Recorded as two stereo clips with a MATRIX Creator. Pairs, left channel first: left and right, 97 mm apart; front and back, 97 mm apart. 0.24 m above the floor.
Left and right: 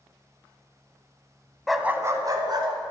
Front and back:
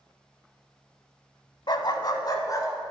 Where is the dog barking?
5° left, 0.6 m; by 2.7 s 50° right, 1.4 m.